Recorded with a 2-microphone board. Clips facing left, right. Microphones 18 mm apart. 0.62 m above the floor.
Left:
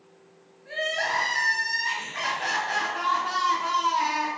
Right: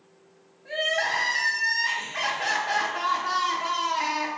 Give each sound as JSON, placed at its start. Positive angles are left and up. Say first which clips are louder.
{"t": 0.7, "sound": "crying", "louder": "right 2 dB", "side_deg": -25, "distance_m": 0.9}